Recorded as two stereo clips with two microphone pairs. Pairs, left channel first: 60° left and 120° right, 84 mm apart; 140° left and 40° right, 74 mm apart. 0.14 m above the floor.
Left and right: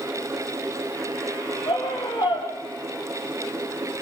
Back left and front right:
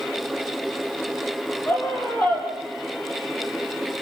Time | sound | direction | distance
1.7 | a scream | 75° left | 4.5 m